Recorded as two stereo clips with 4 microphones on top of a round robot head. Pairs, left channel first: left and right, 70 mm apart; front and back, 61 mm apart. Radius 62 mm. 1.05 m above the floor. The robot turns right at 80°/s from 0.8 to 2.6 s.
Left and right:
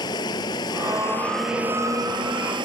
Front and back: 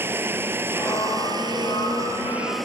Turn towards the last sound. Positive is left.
turn(degrees=-85)